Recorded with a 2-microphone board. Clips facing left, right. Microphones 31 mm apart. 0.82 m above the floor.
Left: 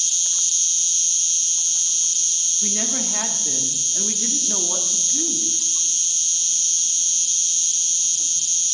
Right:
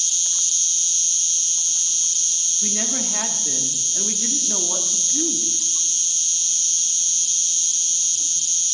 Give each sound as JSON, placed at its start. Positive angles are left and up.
{"t": 0.0, "sound": "an insect", "side_deg": 15, "distance_m": 1.0}
{"t": 2.6, "sound": "a woman speaking", "side_deg": 0, "distance_m": 0.8}